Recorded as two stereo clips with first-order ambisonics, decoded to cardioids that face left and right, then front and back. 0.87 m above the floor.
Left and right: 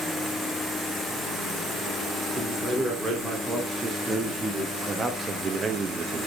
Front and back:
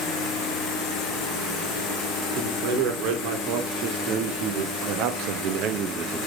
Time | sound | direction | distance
2.4 | a man speaking | 175° right | 3 m